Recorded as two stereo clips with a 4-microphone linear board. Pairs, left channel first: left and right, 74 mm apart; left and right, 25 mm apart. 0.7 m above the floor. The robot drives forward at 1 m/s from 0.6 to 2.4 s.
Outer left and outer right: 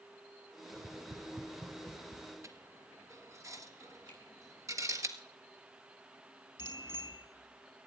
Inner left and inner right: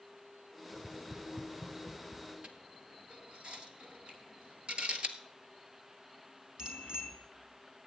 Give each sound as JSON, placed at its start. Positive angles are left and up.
{"t": 0.7, "sound": "tapping", "side_deg": -65, "distance_m": 1.1}
{"t": 2.4, "sound": "a dropped coin", "side_deg": -45, "distance_m": 1.4}
{"t": 4.1, "sound": "a finger snap", "side_deg": -80, "distance_m": 6.0}
{"t": 6.6, "sound": "a bicycle bell", "side_deg": -35, "distance_m": 4.0}